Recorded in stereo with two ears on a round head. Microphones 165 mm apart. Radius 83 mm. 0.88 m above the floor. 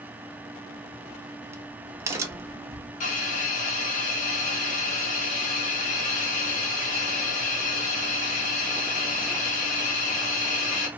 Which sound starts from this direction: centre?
A crack, at 0.7 s.